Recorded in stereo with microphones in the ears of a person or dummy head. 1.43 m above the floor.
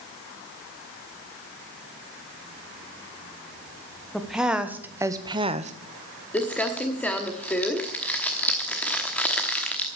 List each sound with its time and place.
4.1 s a woman speaking: 5° left (ahead or behind), 1.3 m; by 5.7 s 35° right (ahead or behind), 0.7 m
6.3 s crumpling: 10° left (ahead or behind), 1.0 m